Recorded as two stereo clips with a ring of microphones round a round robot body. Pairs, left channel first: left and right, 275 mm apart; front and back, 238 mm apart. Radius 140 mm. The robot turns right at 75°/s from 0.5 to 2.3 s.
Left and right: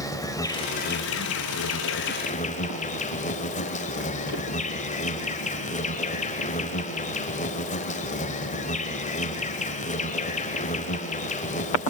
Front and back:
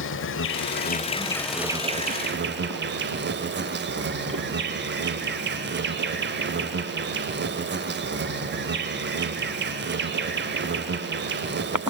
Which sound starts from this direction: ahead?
An insect, at 0.0 s.